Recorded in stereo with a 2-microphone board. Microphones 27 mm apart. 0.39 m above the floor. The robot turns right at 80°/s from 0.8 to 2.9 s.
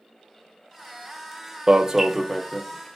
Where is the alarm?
60° right, 0.7 m; by 3.0 s 40° left, 0.7 m.